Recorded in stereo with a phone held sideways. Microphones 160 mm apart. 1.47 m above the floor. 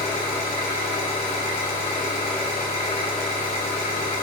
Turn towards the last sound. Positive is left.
turn(degrees=40)  # may be behind; listen again after turning